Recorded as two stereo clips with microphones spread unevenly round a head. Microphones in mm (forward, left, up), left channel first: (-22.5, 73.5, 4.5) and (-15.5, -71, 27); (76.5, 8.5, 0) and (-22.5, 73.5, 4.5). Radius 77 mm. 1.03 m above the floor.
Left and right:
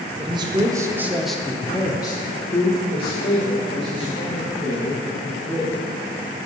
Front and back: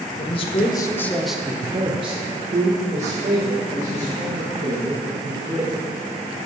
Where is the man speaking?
30° right, 0.9 m; by 5.8 s 140° left, 3 m.